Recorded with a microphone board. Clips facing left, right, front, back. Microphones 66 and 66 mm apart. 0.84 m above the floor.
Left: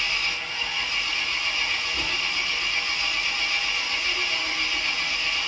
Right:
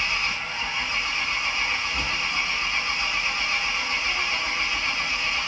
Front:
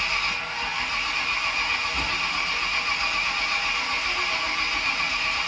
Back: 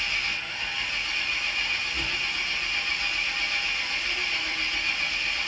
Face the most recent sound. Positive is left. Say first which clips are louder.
# right 2 dB, front 3 dB
turn(degrees=-25)